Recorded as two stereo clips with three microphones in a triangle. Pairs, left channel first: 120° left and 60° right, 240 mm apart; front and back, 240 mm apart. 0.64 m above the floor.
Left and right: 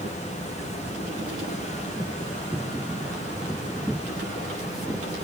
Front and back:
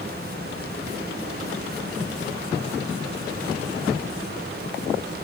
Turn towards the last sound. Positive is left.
No sound to turn to.